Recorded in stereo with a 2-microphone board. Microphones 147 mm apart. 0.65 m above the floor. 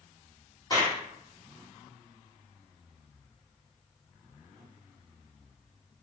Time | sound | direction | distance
0.7 | a clap | 25° left (ahead or behind) | 1.4 m